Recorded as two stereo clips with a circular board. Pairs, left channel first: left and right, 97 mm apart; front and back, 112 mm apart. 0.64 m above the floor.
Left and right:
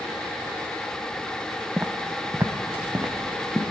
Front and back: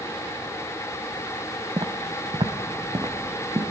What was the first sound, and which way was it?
Footsteps, 155° right.